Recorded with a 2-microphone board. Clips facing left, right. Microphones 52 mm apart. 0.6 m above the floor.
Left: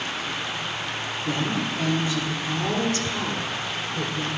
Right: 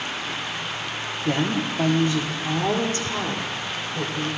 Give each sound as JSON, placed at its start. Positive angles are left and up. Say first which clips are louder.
{"t": 1.2, "sound": "a woman speaking", "louder": "right 3 dB", "side_deg": -50, "distance_m": 1.1}